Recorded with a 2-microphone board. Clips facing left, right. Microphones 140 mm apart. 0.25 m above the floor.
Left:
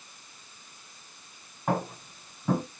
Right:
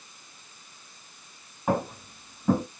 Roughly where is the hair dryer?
No hair dryer in this recording.